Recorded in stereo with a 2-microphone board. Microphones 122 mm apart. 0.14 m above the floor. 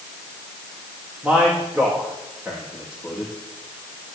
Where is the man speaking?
10° right (ahead or behind), 7.5 m.